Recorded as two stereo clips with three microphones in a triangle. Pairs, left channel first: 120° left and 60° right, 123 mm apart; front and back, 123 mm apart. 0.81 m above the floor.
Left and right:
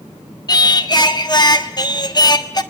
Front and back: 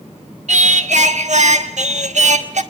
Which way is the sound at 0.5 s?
175° left.